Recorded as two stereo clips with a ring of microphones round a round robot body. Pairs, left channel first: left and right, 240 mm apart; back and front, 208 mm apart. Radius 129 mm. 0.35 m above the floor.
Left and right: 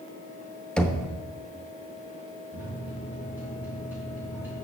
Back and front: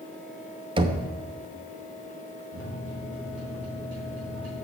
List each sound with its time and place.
0.8 s knocking: 10° left, 0.8 m
2.5 s a microwave: 10° right, 3.5 m